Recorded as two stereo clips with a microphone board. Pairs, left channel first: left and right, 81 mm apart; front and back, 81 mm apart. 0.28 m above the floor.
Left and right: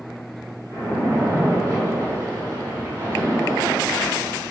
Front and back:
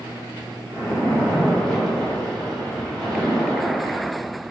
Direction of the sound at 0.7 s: 90° right.